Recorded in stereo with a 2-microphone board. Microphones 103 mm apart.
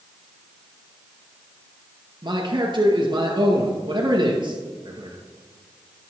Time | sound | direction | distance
2.2 | a man speaking | 45° right (ahead or behind) | 2.0 m